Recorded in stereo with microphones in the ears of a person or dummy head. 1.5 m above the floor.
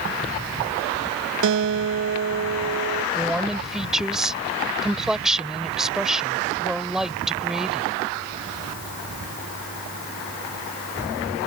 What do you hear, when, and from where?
1.4 s a guitar: 65° right (ahead or behind)
3.1 s a woman speaking: 5° right (ahead or behind)